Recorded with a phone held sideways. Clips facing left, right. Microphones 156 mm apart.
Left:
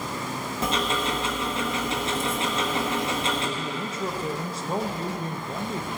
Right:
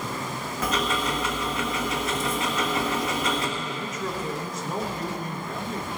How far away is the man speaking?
About 1.2 m.